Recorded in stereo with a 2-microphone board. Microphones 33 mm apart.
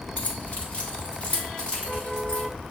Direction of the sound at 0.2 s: 40° left (ahead or behind).